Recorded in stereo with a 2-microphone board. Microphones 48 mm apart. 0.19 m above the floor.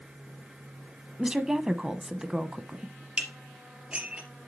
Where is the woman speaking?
15° right (ahead or behind), 1.0 m.